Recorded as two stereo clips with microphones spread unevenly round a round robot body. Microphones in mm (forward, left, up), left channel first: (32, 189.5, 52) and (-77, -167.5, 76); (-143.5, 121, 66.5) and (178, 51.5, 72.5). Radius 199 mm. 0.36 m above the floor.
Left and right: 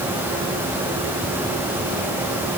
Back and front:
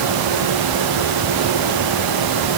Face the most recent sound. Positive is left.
No sound to turn to.